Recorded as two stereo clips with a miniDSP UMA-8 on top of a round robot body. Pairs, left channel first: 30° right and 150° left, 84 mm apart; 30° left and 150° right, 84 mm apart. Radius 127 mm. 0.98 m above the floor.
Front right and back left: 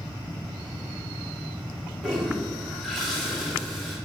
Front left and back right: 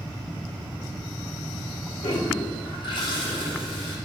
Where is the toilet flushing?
60° left, 1.2 m.